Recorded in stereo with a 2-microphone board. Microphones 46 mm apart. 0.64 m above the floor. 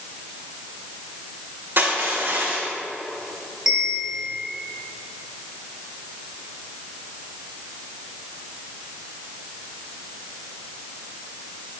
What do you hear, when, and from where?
1.8 s crushing: 50° right (ahead or behind), 3 m
3.7 s a bell: 5° right (ahead or behind), 3 m